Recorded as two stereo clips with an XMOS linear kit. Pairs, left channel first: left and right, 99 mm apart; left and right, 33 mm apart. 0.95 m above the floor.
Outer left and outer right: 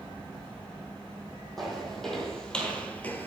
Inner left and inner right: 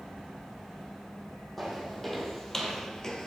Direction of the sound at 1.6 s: 5° left (ahead or behind).